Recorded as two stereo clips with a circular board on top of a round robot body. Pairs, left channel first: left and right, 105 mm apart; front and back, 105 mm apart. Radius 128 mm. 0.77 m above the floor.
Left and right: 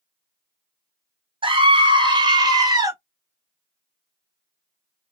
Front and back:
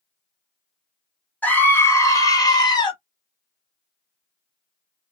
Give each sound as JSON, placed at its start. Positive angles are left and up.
{"t": 1.4, "sound": "a scream", "azimuth_deg": -70, "distance_m": 1.3}